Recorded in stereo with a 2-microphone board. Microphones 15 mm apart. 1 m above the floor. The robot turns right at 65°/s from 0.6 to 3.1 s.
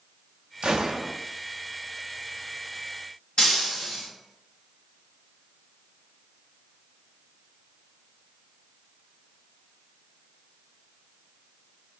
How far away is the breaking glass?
About 2 m.